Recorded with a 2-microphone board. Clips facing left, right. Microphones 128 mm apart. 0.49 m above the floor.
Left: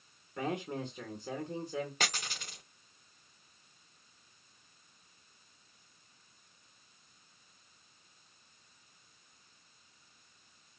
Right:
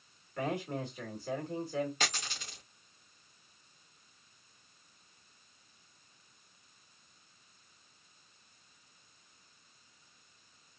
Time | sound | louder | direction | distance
0.4 | a man speaking | right 1 dB | 20° left (ahead or behind) | 1.7 m
2.0 | a dropped coin | even | 50° left (ahead or behind) | 4 m